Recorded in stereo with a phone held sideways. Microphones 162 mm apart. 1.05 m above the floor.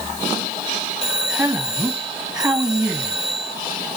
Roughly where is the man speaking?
Centre.